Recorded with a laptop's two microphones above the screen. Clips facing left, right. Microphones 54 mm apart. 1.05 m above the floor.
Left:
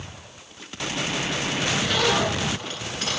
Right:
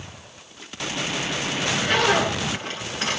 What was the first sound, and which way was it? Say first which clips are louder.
A zipper: right 3 dB; 30° right (ahead or behind).